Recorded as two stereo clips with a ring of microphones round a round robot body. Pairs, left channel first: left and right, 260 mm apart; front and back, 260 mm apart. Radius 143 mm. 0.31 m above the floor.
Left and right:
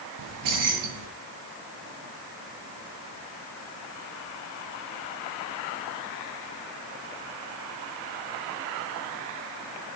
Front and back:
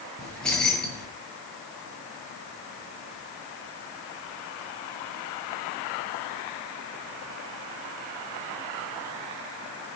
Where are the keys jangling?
85° right, 5.5 m.